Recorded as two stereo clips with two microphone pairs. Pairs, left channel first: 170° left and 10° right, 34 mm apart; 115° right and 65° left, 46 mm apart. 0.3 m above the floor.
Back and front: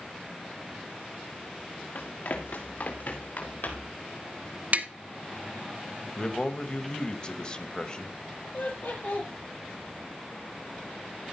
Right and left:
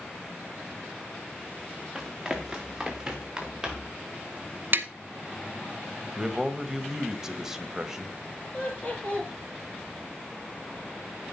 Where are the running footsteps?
150° left, 2.5 m; by 4.0 s 145° left, 5 m.